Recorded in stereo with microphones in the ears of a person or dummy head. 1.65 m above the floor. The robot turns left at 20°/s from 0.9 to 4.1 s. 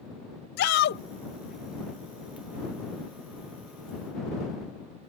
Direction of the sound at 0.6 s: 55° left (ahead or behind).